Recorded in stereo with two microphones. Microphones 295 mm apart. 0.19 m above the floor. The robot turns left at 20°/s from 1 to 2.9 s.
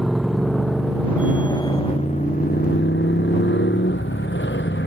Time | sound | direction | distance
0.0 | a motorcycle | straight behind | ?